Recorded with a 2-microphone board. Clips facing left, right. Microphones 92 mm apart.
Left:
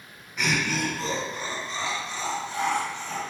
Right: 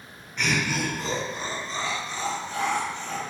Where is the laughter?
5° left (ahead or behind), 0.8 m; by 3.2 s 50° right (ahead or behind), 1.4 m.